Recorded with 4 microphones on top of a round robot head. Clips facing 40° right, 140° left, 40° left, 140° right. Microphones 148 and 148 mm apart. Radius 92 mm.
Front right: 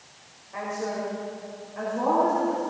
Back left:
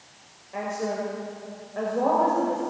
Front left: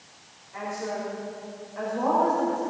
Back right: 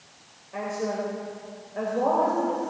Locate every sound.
0.5 s a woman speaking: 160° right, 3 m; by 2.6 s 165° left, 3.5 m